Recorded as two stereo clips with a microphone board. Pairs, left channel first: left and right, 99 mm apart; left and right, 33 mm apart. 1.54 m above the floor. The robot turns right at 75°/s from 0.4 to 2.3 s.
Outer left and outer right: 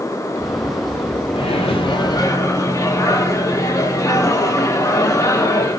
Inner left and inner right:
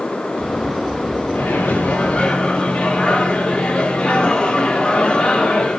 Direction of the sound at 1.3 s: 75° left.